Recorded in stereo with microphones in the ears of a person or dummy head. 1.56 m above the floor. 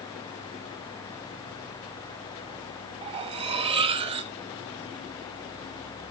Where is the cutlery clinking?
25° right (ahead or behind), 1.1 m.